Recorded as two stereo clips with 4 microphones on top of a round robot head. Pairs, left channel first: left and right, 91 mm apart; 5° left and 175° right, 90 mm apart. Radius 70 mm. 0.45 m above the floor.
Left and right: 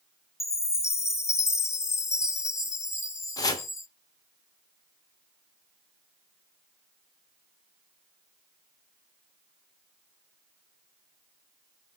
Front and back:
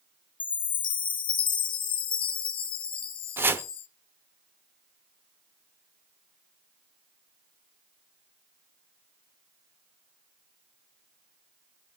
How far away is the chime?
About 0.6 m.